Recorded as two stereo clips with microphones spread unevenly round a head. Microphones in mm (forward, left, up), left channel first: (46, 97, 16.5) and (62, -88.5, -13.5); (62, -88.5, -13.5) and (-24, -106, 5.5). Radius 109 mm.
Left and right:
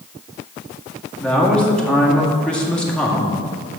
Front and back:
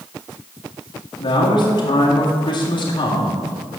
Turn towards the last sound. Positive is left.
turn(degrees=10)